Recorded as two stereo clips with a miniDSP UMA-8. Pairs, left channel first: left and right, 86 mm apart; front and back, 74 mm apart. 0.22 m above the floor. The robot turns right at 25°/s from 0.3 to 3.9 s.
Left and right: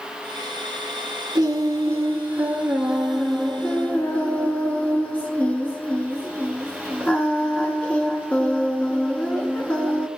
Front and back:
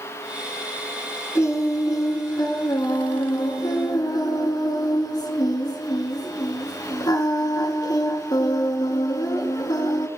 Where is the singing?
45° right, 1.1 m; by 10.1 s 20° left, 1.1 m.